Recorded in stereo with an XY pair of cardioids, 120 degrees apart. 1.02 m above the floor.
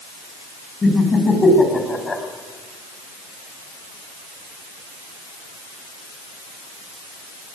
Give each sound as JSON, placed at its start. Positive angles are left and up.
{"t": 0.8, "sound": "laughter", "azimuth_deg": 25, "distance_m": 6.5}